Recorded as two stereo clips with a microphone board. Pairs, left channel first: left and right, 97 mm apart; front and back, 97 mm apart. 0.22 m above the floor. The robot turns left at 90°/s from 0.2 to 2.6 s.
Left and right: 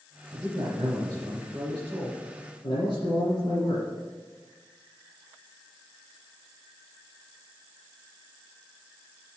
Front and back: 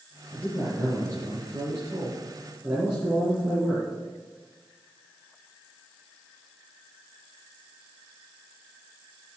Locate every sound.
0.3 s a man speaking: 55° right, 2.5 m; by 3.8 s 100° left, 2.5 m